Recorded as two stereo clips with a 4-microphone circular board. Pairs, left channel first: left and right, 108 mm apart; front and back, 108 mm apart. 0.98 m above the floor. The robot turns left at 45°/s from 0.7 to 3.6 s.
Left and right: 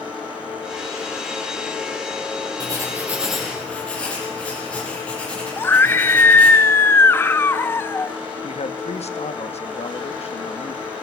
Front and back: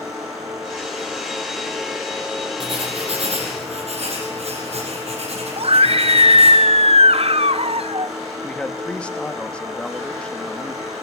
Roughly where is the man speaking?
Left.